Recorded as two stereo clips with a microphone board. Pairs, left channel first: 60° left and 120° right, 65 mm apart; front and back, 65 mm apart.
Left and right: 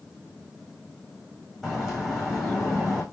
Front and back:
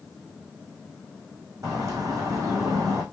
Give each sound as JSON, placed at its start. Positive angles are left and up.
{"t": 1.6, "sound": "a bird", "azimuth_deg": 145, "distance_m": 7.0}